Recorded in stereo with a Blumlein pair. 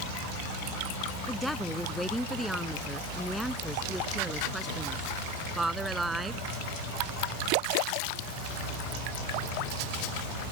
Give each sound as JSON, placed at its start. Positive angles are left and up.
{"t": 1.3, "sound": "a woman speaking", "azimuth_deg": 0}